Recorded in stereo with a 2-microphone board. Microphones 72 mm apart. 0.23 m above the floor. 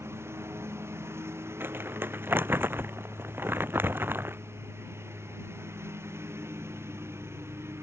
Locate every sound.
0.0 s a lawn mower: 35° right (ahead or behind)
1.6 s crumpling: 30° right (ahead or behind)